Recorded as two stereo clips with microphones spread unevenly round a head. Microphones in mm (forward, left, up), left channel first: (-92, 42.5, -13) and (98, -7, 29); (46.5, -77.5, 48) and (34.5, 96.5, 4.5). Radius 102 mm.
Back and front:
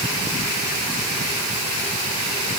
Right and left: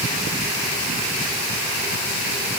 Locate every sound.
Only background noise.